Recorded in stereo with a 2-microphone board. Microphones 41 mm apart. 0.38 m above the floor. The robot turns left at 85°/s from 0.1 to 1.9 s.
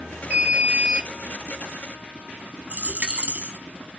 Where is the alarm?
65° right, 0.8 m; by 1.1 s 130° right, 0.8 m.